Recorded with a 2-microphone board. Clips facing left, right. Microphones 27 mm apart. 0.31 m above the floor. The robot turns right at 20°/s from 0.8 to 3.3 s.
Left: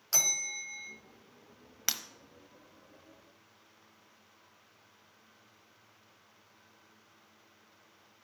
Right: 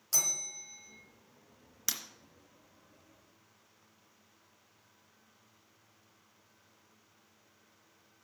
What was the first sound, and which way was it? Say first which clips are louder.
A bell: left 3 dB; 35° left (ahead or behind).